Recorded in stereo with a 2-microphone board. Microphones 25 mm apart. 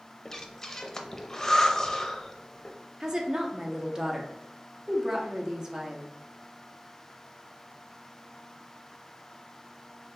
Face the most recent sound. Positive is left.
turn(degrees=-25)  # may be behind; listen again after turning